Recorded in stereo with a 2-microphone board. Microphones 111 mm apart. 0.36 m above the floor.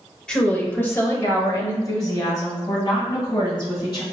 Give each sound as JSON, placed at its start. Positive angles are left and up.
{"t": 0.3, "sound": "a woman speaking", "side_deg": 5, "distance_m": 1.0}